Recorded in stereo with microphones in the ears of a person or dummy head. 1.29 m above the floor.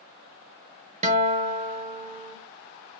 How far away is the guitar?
About 0.9 m.